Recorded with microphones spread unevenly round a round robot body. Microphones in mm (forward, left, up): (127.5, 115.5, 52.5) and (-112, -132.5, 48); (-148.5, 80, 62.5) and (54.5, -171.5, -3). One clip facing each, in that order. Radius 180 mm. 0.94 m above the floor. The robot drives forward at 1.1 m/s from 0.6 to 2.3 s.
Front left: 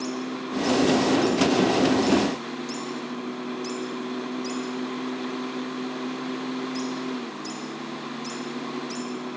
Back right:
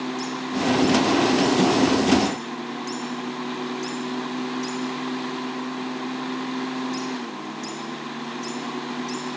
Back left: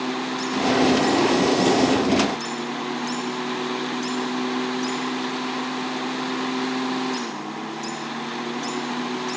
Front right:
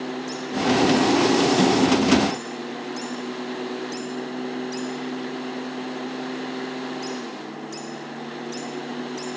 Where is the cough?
No cough in this recording.